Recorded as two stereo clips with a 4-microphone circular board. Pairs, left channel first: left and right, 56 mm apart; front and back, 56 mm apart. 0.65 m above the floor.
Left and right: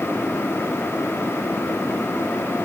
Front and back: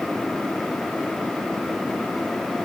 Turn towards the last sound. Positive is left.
No sound to turn to.